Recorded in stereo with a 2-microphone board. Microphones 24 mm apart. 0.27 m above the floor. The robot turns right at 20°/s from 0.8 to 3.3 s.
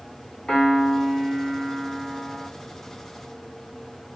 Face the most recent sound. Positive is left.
turn(degrees=170)